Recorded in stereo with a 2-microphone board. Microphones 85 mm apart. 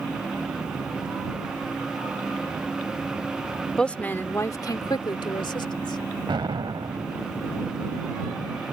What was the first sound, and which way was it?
A woman speaking, 10° left (ahead or behind).